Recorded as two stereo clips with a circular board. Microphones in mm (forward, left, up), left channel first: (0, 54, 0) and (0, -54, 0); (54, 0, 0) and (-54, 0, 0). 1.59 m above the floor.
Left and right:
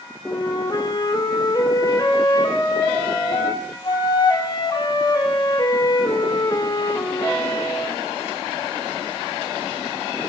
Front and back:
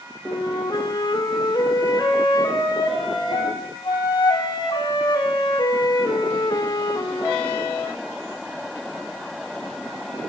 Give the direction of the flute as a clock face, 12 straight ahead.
11 o'clock.